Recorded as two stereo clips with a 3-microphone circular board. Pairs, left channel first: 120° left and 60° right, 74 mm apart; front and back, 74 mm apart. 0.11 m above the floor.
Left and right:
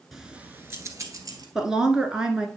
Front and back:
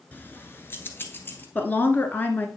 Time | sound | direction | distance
0.1 | keys jangling | 25° left | 1.0 m
1.6 | a woman speaking | 10° left | 1.3 m